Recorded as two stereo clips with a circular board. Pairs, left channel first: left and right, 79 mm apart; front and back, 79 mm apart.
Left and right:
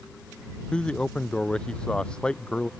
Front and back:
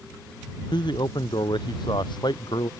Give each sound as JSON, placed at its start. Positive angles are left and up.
{"t": 0.7, "sound": "a man speaking", "azimuth_deg": 10}